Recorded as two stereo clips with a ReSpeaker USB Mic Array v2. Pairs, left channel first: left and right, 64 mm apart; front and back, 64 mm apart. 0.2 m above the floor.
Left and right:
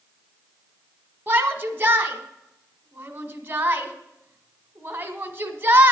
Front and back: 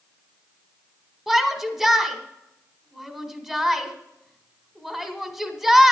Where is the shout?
100° right, 1.2 m.